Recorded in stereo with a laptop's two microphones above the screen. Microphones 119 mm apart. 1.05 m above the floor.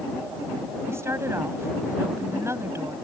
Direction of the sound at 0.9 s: 20° right (ahead or behind).